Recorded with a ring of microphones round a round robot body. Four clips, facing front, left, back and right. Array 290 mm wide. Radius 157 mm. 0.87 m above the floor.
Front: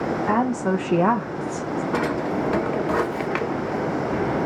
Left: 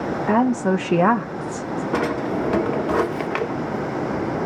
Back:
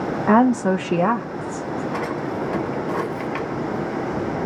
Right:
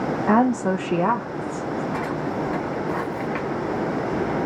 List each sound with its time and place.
0.3 s a woman speaking: 155° right, 0.8 m; by 1.8 s 60° left, 1.1 m
1.9 s a drawer: 65° left, 0.9 m